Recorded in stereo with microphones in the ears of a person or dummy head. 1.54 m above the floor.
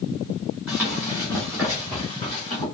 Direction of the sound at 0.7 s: 5° right (ahead or behind).